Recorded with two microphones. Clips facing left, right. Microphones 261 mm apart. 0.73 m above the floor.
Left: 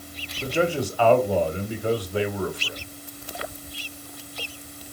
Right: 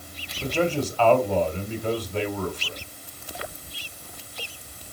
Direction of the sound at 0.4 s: 10° left (ahead or behind).